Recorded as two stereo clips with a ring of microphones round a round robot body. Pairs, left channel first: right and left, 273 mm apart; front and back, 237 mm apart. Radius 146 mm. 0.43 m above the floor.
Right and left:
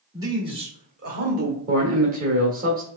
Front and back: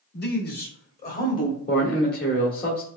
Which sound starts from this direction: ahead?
A man speaking, at 0.1 s.